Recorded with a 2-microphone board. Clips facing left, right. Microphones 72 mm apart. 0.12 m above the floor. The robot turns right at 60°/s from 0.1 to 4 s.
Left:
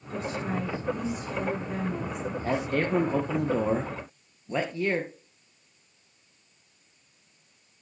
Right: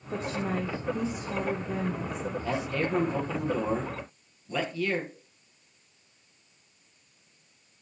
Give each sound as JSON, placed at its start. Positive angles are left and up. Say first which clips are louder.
{"t": 0.1, "sound": "a woman speaking", "louder": "even", "azimuth_deg": -105, "distance_m": 5.0}
{"t": 2.4, "sound": "a man speaking", "louder": "left 4 dB", "azimuth_deg": 55, "distance_m": 2.0}